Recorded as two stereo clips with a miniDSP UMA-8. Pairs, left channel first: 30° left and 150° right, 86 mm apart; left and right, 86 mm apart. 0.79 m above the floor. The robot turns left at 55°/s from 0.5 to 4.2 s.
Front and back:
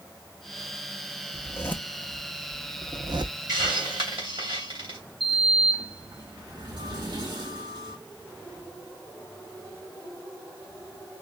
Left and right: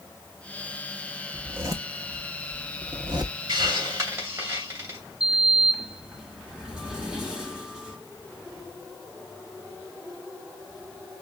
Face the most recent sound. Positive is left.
turn(degrees=-170)